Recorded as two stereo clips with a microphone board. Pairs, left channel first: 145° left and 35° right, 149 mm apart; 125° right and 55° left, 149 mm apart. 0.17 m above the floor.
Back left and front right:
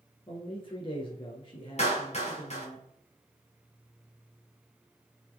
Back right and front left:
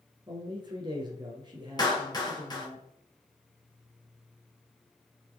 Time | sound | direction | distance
0.3 | a man speaking | 105° left | 1.6 m
1.8 | a clap | straight behind | 2.5 m